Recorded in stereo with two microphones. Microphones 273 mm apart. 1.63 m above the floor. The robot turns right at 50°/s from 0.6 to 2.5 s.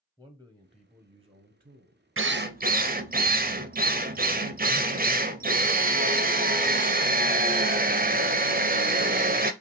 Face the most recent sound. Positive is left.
turn(degrees=-35)  # may be behind; listen again after turning